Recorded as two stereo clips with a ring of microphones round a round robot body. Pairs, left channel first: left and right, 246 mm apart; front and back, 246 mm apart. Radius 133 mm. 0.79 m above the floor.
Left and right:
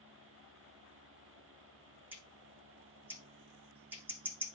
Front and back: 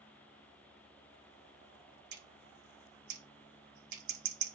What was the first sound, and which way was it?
Scissors, 175° right.